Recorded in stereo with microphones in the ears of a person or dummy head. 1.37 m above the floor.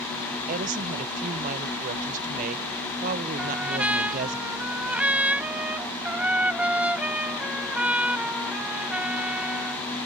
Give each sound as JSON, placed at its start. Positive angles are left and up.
{"t": 0.5, "sound": "a woman speaking", "side_deg": -45}
{"t": 3.4, "sound": "a trumpet", "side_deg": -10}